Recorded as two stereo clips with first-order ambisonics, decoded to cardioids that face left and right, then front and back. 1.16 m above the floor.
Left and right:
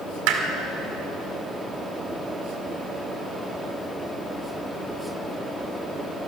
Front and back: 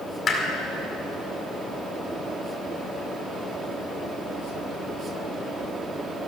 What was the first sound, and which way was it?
Hammering, 70° right.